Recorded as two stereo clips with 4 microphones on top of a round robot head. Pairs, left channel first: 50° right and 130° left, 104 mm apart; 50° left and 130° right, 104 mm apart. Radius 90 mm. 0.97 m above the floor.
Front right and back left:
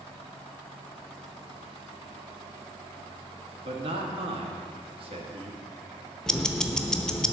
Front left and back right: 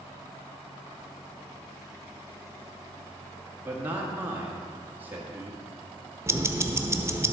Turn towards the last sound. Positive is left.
turn(degrees=-125)